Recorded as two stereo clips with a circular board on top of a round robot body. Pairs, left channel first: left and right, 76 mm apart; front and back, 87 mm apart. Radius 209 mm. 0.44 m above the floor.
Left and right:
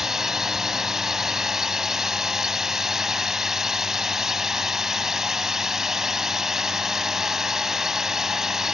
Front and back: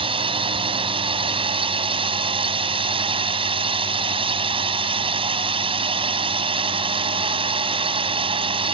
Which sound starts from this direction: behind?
A drone, at 0.0 s.